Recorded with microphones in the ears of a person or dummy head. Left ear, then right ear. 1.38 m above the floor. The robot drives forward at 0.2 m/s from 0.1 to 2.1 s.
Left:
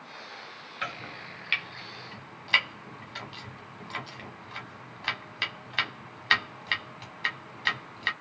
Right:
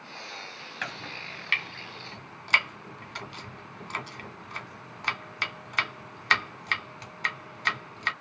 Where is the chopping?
30° right (ahead or behind), 1.5 m; by 8.1 s 25° right (ahead or behind), 1.7 m.